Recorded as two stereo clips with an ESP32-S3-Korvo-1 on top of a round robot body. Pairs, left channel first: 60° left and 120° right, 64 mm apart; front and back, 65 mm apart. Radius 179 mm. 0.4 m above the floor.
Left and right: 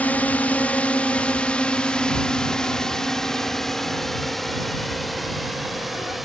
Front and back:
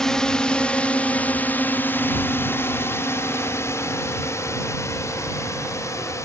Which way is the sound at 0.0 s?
65° left.